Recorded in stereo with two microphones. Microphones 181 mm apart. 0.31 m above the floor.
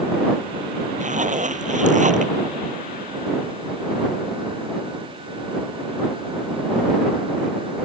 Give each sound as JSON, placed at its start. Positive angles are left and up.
{"t": 1.0, "sound": "a zipper", "side_deg": -45}